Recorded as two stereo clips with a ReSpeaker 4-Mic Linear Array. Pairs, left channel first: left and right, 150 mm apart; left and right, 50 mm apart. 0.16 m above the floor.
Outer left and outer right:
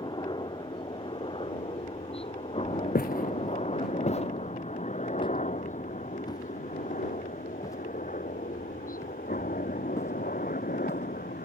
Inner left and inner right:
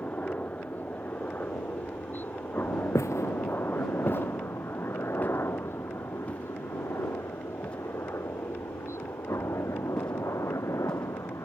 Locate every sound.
0.0 s a helicopter: 30° left (ahead or behind); by 11.5 s 75° left (ahead or behind)
3.0 s footsteps: 80° left; by 11.1 s 15° left (ahead or behind)